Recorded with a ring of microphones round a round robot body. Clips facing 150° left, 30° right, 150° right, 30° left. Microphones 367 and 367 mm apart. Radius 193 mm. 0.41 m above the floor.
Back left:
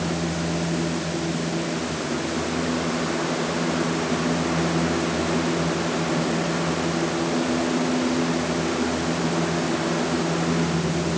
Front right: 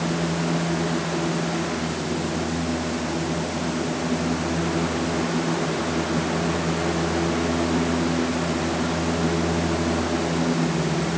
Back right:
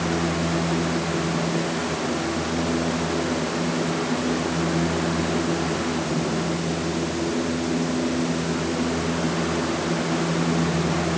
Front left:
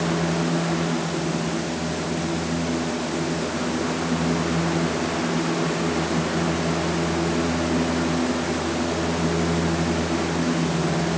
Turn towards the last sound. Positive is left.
No sound to turn to.